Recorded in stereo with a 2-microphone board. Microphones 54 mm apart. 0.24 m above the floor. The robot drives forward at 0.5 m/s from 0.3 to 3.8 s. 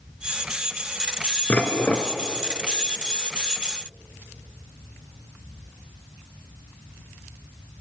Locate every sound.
1.5 s dishes clattering: 30° left (ahead or behind), 2 m; by 2.1 s 25° left (ahead or behind), 2.5 m